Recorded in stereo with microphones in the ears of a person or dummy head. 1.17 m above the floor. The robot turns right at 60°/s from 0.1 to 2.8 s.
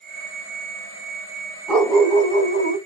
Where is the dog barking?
Straight ahead, 2.5 m; by 2.8 s 65° left, 2.5 m.